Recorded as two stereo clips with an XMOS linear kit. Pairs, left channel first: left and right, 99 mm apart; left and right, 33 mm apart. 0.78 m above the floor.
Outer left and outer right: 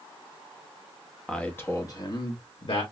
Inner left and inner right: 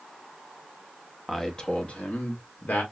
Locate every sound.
1.3 s a man speaking: 5° left (ahead or behind), 0.9 m; by 2.8 s 65° left (ahead or behind), 1.5 m